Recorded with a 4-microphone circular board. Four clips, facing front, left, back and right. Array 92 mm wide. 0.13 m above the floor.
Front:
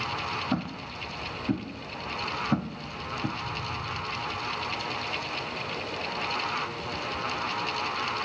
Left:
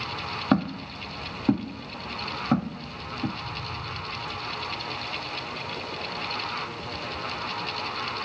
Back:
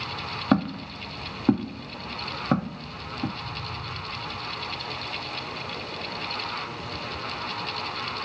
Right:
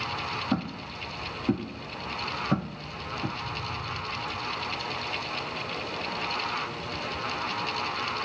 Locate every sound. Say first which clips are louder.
0.5 s footsteps: left 10 dB, back 7 dB; 140° left, 1.1 m; by 3.3 s straight behind, 2 m